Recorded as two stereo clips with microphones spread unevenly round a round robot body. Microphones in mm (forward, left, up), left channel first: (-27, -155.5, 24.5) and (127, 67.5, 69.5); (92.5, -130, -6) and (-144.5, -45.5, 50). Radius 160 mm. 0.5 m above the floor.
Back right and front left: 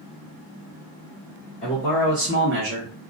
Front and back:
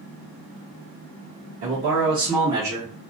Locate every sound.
1.6 s a man speaking: 170° right, 1.1 m; by 2.9 s 60° left, 1.3 m